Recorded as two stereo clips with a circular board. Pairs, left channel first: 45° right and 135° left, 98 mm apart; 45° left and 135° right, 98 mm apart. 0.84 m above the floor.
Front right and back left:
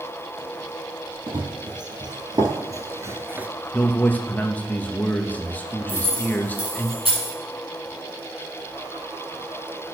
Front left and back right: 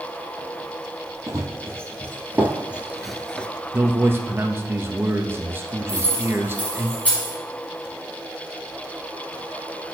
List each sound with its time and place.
1.3 s running footsteps: 170° left, 1.8 m; by 3.5 s 100° left, 0.8 m
3.7 s a man speaking: 95° right, 0.9 m
5.9 s keys jangling: 120° left, 5.5 m